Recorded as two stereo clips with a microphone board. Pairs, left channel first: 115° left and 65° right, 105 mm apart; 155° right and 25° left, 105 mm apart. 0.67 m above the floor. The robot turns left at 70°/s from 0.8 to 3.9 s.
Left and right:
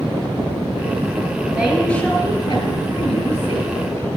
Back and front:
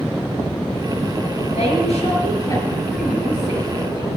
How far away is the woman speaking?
About 5 m.